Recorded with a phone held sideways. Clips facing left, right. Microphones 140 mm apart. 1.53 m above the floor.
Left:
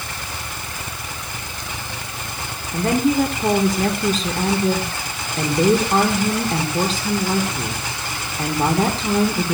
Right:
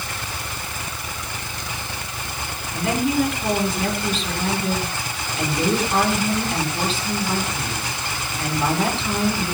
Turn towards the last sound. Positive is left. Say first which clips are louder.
# left 3 dB
turn(degrees=45)  # may be behind; listen again after turning